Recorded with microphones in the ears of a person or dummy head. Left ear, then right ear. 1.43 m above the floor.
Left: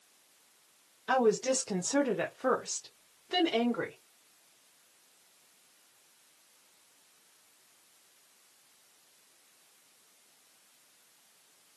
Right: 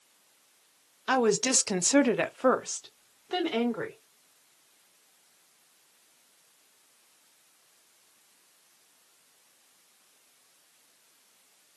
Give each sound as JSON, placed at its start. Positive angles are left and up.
{"t": 1.1, "sound": "a woman speaking", "side_deg": -40, "distance_m": 0.8}